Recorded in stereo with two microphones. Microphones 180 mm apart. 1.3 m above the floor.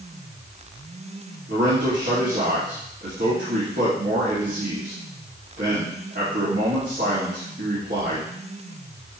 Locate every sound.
1.5 s a man speaking: 55° right (ahead or behind), 2.5 m